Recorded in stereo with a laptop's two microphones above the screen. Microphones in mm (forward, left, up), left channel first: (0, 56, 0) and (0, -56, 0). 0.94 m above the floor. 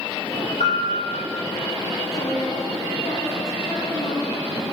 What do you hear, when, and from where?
0.6 s a piano: 80° left, 7.5 m
2.1 s a woman speaking: 65° left (ahead or behind), 8.5 m